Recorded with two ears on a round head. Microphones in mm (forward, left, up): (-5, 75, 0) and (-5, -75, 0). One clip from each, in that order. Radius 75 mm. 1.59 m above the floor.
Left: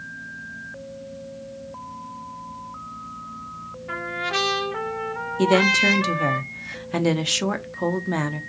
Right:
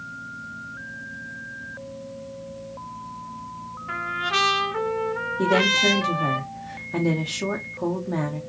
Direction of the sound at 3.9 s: 5° right (ahead or behind).